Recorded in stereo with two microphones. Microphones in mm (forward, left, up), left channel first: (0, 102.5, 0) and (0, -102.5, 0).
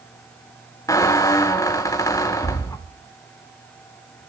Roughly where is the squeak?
Centre.